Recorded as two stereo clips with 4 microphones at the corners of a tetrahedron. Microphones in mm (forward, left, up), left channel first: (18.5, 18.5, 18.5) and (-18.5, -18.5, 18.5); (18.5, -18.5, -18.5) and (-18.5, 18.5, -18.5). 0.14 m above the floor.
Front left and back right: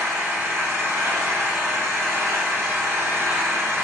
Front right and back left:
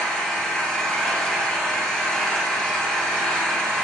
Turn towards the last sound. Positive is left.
turn(degrees=-125)